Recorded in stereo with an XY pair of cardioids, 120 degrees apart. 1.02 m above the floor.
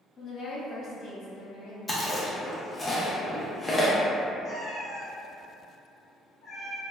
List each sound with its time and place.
0.2 s a woman speaking: 45° left, 1.0 m
1.9 s chewing: 15° left, 0.6 m
4.4 s a cat meowing: 50° left, 1.0 m